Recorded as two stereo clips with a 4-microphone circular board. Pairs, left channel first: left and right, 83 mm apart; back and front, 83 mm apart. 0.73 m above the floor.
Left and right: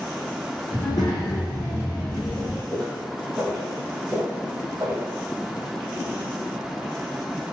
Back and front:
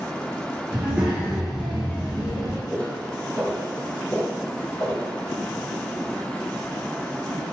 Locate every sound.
0.7 s a child speaking: 65° left, 1.0 m; by 2.6 s 165° right, 0.6 m
2.7 s footsteps: 130° left, 0.8 m; by 5.1 s 125° right, 1.4 m